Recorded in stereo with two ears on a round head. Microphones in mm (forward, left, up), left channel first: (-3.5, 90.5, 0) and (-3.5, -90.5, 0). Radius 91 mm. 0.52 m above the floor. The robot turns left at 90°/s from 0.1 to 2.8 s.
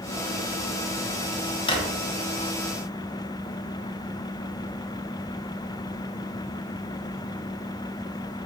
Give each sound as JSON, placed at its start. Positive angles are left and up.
{"t": 1.7, "sound": "a drawer", "side_deg": 25, "distance_m": 1.3}